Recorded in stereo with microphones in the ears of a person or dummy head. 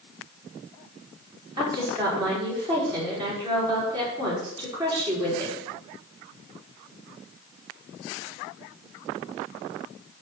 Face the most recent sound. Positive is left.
turn(degrees=-20)  # may be behind; listen again after turning